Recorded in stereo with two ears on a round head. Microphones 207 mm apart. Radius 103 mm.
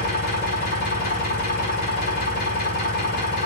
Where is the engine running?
40° left (ahead or behind), 6 m.